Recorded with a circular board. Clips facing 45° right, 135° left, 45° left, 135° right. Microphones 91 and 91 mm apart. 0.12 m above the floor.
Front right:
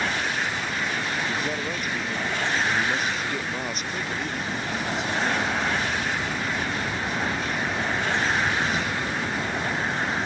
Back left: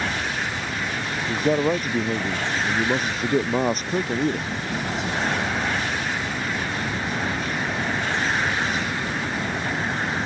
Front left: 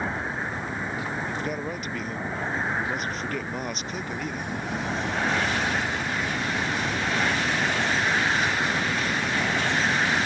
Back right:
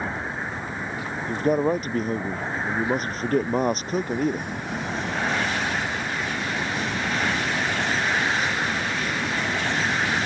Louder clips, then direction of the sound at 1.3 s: Back left 7 dB, back right 9 dB; straight behind.